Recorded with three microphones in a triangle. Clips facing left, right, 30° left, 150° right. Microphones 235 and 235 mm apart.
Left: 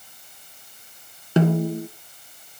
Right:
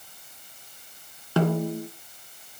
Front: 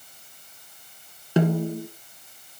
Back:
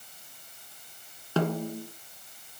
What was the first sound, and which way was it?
A snare drum, 65° left.